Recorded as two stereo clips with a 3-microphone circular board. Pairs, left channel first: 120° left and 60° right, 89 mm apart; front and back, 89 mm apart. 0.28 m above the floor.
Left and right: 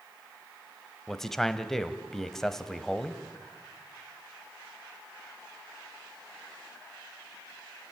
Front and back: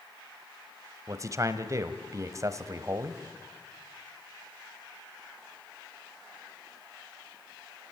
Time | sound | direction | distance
1.1 | a man speaking | 160° right | 1.2 m